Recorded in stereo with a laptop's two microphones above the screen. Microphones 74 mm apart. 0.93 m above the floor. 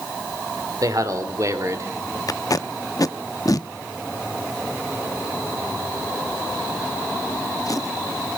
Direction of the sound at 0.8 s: 55° right (ahead or behind).